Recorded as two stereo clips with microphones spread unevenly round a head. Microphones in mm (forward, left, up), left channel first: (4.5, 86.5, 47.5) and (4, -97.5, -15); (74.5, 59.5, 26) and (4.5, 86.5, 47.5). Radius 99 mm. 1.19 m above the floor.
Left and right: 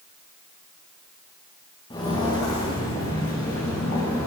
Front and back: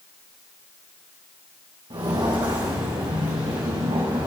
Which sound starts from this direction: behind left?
Footsteps, at 1.9 s.